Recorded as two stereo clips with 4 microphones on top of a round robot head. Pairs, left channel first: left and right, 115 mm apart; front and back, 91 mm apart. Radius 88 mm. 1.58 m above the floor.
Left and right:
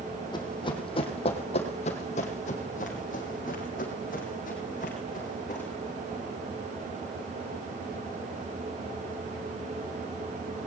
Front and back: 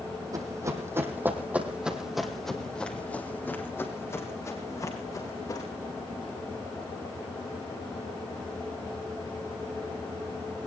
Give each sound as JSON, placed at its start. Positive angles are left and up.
{"t": 0.3, "sound": "running footsteps", "azimuth_deg": 135, "distance_m": 3.0}